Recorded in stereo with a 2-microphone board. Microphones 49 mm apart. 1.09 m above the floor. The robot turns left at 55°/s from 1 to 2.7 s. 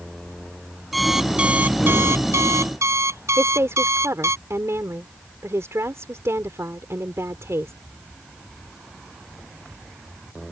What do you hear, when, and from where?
0.9 s an alarm clock: straight ahead; by 4.4 s 90° right
3.4 s a woman speaking: 75° right (ahead or behind)